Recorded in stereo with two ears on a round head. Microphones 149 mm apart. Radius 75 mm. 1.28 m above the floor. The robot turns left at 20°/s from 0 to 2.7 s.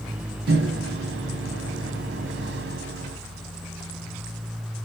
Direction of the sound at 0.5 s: 65° right.